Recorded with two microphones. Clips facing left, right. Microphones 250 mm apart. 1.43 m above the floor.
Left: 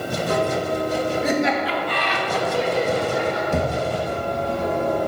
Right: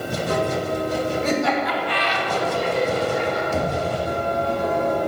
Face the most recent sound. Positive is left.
turn(degrees=60)  # may be behind; listen again after turning